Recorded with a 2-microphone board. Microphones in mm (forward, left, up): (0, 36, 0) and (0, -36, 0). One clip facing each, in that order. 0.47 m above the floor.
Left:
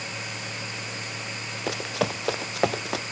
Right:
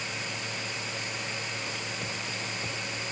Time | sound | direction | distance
1.7 | running footsteps | 85° left | ?